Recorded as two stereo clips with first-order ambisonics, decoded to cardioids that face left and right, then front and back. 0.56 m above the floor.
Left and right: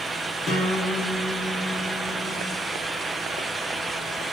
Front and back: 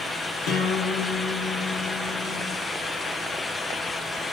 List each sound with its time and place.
0.5 s a guitar: 20° left, 2 m